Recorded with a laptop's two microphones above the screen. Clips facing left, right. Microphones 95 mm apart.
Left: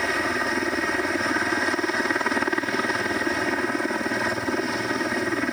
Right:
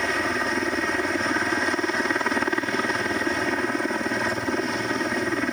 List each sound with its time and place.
0.0 s a helicopter: centre (ahead or behind)